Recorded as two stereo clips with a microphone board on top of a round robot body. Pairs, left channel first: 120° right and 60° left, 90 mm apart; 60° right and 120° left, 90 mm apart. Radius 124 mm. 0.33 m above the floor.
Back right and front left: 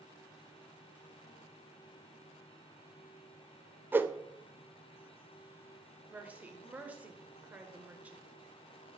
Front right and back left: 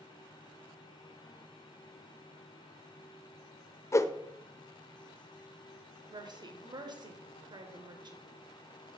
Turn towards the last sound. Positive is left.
turn(degrees=130)